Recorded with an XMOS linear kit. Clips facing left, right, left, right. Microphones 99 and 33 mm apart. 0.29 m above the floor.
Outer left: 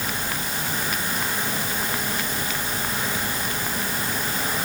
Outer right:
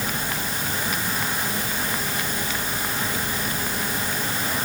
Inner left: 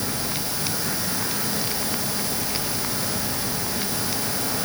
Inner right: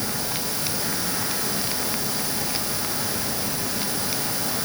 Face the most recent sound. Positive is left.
No sound to turn to.